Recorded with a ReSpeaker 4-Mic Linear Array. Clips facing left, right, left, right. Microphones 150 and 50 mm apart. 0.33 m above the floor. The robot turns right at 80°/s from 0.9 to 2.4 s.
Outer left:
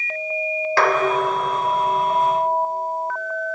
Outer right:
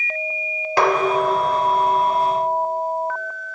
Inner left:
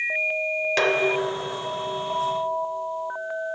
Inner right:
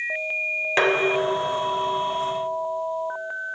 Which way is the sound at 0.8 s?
20° right (ahead or behind).